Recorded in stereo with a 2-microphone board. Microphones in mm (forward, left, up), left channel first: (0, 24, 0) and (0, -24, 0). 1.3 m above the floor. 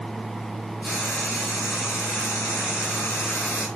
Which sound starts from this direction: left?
Frying, at 0.8 s.